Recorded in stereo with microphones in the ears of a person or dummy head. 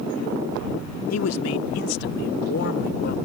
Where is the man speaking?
75° left (ahead or behind); by 3.1 s 55° left (ahead or behind).